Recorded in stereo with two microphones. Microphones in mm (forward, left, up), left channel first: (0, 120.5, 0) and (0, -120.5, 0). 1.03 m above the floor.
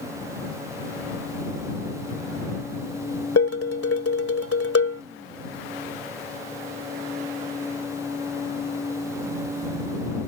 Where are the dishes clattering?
70° left (ahead or behind).